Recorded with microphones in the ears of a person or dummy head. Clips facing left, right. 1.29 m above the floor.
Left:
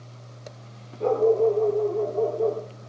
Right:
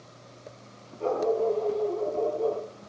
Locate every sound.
1.0 s a dog barking: 25° left (ahead or behind), 9 m; by 2.9 s 20° left (ahead or behind), 9 m